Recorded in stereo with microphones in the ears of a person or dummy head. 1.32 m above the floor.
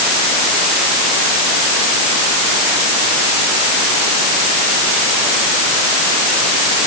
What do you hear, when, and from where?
Only background noise.